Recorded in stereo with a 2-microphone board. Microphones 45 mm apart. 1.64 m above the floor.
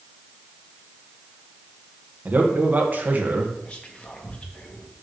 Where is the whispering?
30° left (ahead or behind), 1.4 m.